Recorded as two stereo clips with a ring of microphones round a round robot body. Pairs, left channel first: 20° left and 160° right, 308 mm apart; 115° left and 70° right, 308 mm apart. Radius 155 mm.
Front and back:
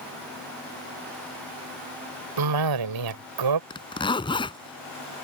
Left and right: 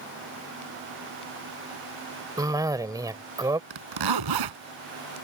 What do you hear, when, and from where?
2.4 s a cough: 145° right
3.7 s a zipper: 55° right